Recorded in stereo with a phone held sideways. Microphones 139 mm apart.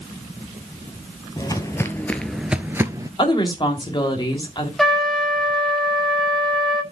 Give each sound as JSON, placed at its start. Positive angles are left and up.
{"t": 1.4, "sound": "footsteps", "side_deg": 25, "distance_m": 1.1}
{"t": 3.2, "sound": "a woman speaking", "side_deg": 35, "distance_m": 2.5}
{"t": 4.8, "sound": "a trumpet", "side_deg": 0, "distance_m": 1.4}